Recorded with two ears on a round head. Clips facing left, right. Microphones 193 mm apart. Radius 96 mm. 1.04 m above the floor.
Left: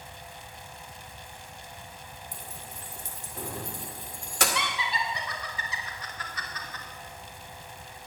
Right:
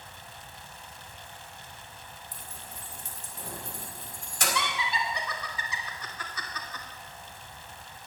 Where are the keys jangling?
55° left (ahead or behind), 2 m.